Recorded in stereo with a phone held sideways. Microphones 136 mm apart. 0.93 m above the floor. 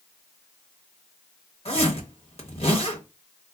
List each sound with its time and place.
1.6 s a zipper: 50° left (ahead or behind), 1.0 m